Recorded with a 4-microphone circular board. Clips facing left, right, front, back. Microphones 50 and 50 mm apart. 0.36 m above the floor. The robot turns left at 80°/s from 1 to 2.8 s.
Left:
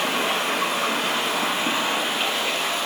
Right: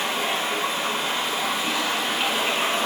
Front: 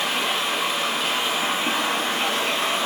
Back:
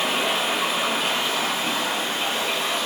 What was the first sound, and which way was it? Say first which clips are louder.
Running water: left 2 dB, back 1 dB; 95° left.